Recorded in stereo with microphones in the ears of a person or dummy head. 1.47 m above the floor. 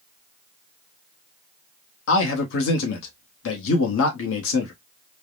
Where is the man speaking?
70° left (ahead or behind), 0.9 m.